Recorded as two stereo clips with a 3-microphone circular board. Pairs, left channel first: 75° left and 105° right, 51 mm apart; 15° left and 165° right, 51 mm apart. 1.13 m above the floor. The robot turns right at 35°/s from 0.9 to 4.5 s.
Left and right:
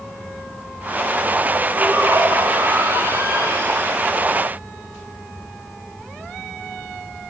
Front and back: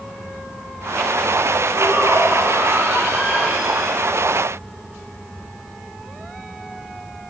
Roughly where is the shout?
Behind right.